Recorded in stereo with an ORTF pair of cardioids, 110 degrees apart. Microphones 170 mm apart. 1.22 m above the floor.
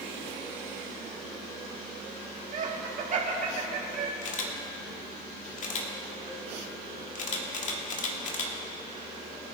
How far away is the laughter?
About 2.5 m.